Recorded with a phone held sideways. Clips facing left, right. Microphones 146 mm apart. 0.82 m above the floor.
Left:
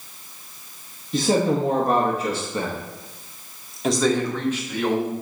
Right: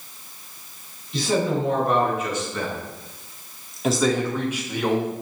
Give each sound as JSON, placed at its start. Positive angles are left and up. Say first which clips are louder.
{"t": 1.1, "sound": "a man speaking", "louder": "left 3 dB", "side_deg": 45, "distance_m": 1.5}